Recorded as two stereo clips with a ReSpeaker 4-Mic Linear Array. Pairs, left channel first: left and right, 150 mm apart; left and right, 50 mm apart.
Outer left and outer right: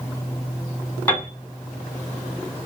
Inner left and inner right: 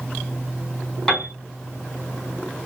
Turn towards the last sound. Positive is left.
turn(degrees=10)  # may be behind; listen again after turning